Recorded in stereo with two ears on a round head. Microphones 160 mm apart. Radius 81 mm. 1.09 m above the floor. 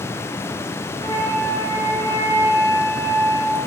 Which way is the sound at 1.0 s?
25° right (ahead or behind).